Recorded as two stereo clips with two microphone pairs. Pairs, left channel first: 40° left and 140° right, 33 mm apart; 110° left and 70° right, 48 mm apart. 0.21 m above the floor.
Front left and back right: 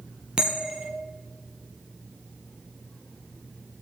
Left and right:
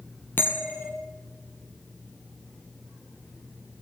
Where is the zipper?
No zipper in this recording.